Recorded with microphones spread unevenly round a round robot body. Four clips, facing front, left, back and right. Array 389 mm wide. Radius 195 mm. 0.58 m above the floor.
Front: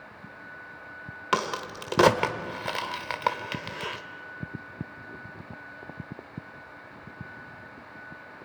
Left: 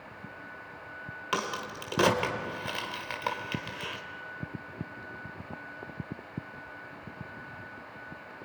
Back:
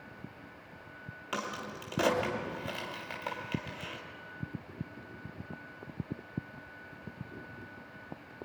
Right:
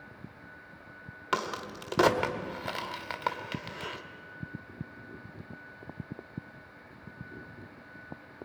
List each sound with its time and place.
1.3 s a crack: straight ahead, 1.7 m